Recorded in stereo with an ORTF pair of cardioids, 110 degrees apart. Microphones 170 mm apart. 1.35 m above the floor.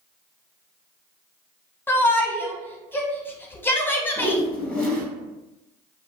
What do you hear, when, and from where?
1.9 s a shout: 15° left, 0.7 m
4.2 s a whoosh: 5° left, 0.7 m